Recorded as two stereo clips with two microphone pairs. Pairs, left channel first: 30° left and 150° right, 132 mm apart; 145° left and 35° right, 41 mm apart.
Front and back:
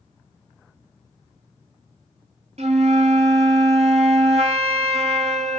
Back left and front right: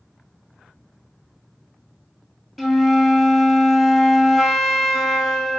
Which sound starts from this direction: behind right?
A flute, at 2.6 s.